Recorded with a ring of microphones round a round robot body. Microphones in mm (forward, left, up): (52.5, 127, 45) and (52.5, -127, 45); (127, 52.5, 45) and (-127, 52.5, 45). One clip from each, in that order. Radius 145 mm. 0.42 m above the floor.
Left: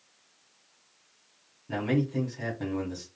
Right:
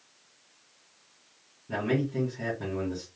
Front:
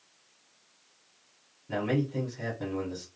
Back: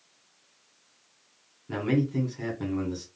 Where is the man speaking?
125° left, 1.7 m.